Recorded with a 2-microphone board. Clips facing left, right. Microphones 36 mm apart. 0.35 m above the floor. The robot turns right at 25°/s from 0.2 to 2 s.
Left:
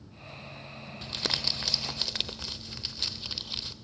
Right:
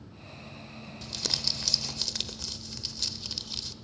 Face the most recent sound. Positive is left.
turn(degrees=25)  # may be behind; listen again after turning